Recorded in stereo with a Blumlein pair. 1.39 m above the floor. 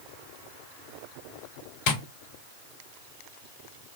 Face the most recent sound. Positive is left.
turn(degrees=45)